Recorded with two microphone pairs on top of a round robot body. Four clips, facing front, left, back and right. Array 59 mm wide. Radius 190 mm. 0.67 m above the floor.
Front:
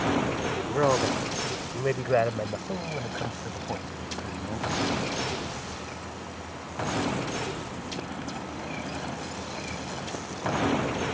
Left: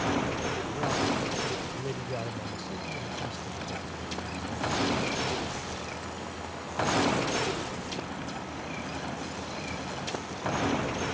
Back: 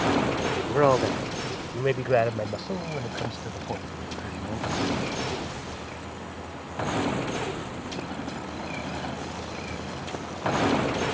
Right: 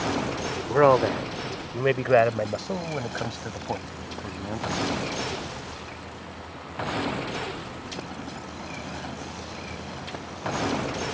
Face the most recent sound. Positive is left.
turn(degrees=-75)